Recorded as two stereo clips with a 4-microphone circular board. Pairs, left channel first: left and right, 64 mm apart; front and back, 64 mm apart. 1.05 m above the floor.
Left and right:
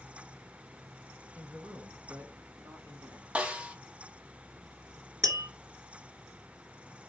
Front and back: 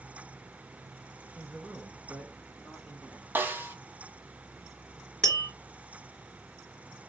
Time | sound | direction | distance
1.4 | a man speaking | 130° right | 1.0 m
3.4 | a snare drum | 150° right | 0.5 m
5.2 | tapping | 80° right | 2.5 m